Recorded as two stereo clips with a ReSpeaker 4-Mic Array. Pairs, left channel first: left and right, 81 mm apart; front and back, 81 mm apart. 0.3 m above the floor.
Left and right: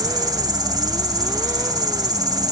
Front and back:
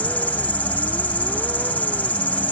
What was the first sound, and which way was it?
An insect, 70° right.